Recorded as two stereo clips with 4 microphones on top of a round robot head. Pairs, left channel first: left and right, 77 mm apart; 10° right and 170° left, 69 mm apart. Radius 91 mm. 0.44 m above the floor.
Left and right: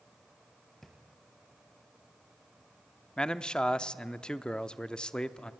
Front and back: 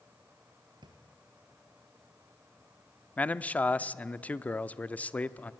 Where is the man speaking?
25° left, 0.8 m.